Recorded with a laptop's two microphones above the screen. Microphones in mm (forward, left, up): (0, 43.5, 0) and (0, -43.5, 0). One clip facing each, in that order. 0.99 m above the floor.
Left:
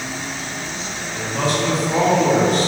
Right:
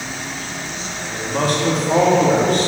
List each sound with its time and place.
1.1 s a man speaking: 50° right (ahead or behind), 1.7 m; by 2.7 s 60° right (ahead or behind), 3 m